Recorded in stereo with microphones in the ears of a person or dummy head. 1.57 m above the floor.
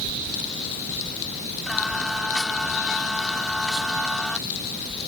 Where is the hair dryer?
I don't hear a hair dryer.